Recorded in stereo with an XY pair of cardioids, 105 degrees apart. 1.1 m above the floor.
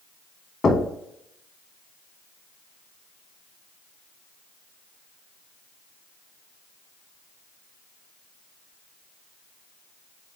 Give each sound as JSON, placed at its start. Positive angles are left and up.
{"t": 0.6, "sound": "knocking", "azimuth_deg": 35, "distance_m": 1.0}